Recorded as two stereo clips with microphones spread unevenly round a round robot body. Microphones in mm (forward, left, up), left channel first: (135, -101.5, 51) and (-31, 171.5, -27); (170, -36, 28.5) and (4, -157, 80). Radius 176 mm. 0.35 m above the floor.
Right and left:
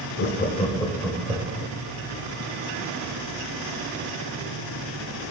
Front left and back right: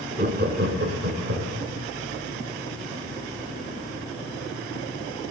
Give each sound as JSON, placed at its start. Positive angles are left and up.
{"t": 0.2, "sound": "laughter", "azimuth_deg": -100, "distance_m": 0.9}